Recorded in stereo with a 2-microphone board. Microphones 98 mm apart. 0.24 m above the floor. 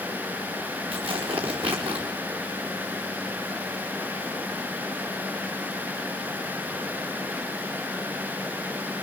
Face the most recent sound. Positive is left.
turn(degrees=-70)  # may be behind; listen again after turning